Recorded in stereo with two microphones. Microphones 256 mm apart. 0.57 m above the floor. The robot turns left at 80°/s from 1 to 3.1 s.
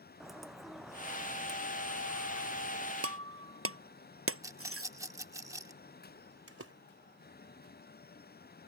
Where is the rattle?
10° right (ahead or behind).